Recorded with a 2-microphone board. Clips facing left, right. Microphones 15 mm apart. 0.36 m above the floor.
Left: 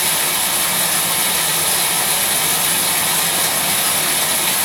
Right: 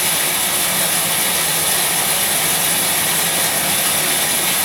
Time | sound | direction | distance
0.0 | running water | 25° left (ahead or behind) | 2.0 m